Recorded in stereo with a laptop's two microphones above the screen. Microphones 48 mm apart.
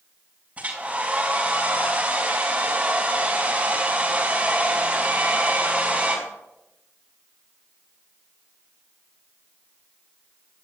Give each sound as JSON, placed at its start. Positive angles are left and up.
{"t": 0.6, "sound": "a hair dryer", "side_deg": -30, "distance_m": 4.5}